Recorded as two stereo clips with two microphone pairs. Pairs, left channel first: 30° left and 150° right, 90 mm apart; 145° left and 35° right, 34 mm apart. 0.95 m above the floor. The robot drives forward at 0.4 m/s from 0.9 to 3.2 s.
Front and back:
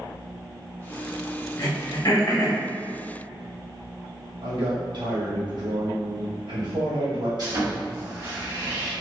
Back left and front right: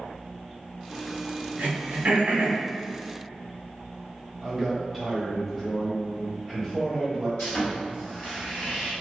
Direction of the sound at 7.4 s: 170° right.